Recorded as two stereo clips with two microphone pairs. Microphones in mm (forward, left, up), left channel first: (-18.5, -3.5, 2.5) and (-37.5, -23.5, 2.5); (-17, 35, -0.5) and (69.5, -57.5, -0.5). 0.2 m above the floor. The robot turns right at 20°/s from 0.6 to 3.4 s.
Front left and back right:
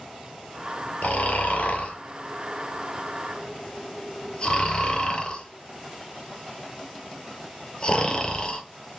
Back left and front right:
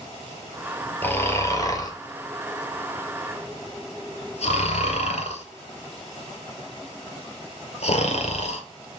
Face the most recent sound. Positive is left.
turn(degrees=105)